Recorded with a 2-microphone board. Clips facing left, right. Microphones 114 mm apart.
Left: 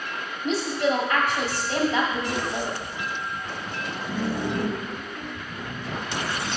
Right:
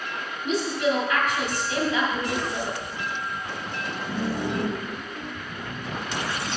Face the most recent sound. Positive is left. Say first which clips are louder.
# even
turn(degrees=30)  # may be behind; listen again after turning